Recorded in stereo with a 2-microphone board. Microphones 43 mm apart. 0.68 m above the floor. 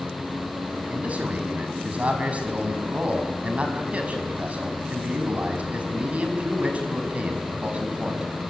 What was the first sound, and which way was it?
A man speaking, 30° right (ahead or behind).